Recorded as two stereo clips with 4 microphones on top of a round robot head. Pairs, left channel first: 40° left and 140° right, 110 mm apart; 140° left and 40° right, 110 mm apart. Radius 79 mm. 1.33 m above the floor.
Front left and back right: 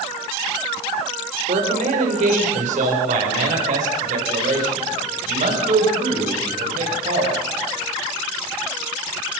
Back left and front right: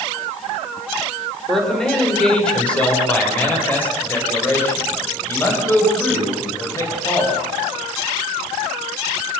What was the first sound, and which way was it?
A man speaking, 130° right.